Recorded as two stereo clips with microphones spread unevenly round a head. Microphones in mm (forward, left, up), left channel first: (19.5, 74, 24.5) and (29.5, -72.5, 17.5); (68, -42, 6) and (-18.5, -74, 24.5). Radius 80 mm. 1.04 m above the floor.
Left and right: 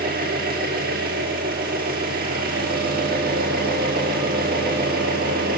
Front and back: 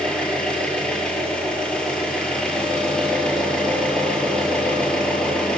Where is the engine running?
65° right, 7 m.